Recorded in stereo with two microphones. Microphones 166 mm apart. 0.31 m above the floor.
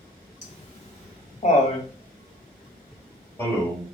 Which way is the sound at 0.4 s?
45° left (ahead or behind).